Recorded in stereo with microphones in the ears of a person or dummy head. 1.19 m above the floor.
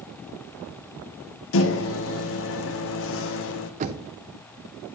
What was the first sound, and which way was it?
A microwave, 60° left (ahead or behind).